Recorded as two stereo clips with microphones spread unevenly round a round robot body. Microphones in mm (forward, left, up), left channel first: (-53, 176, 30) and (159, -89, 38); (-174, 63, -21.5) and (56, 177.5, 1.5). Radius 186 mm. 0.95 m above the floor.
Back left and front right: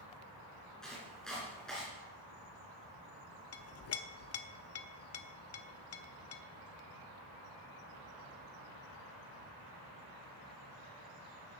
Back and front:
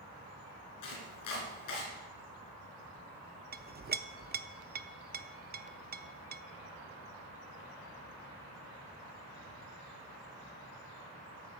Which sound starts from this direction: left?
A clink, at 3.5 s.